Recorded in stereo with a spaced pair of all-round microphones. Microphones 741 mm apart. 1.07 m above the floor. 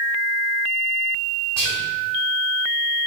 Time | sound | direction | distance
1.6 | whispering | 35° right (ahead or behind) | 2.5 m